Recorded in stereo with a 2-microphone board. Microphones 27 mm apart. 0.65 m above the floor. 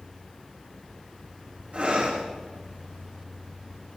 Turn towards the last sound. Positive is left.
turn(degrees=-65)  # may be behind; listen again after turning